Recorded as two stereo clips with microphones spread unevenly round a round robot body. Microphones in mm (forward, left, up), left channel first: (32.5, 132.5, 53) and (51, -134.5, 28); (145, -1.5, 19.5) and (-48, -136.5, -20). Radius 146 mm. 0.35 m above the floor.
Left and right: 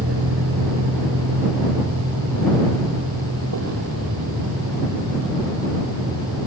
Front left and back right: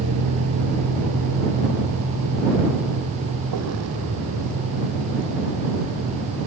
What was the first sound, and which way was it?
A vehicle, 135° right.